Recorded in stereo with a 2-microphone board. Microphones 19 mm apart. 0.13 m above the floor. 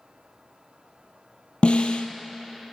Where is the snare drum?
70° left (ahead or behind), 0.5 m.